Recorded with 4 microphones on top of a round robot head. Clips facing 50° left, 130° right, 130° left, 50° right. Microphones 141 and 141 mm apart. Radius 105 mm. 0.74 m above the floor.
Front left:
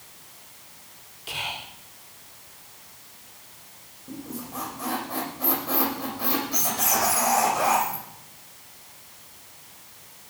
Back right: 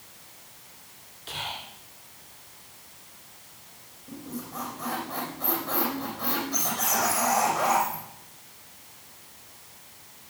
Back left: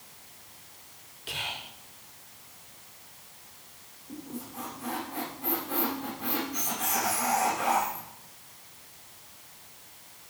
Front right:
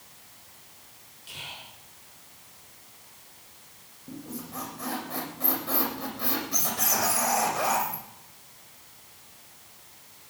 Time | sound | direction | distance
1.3 | whispering | 125° left | 3 m
4.1 | a squeak | 30° right | 7.5 m